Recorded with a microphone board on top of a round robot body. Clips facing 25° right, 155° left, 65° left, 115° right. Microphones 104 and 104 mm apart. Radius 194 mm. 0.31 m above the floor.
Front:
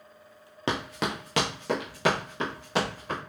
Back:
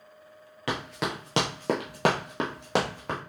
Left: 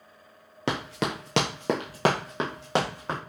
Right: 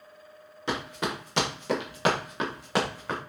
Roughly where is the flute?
No flute in this recording.